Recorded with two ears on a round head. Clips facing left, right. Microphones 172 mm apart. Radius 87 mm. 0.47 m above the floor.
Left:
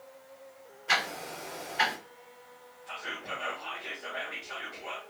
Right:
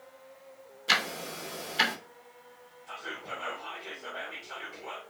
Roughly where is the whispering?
Centre.